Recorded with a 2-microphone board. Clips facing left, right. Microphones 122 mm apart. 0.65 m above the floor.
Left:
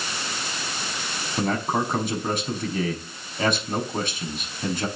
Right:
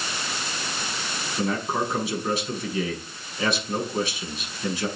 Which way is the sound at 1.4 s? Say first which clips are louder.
Left 2 dB; 50° left (ahead or behind).